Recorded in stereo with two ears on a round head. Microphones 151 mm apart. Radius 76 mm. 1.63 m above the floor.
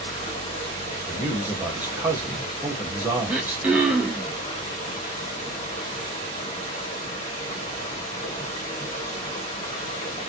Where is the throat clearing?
5° right (ahead or behind), 0.8 m.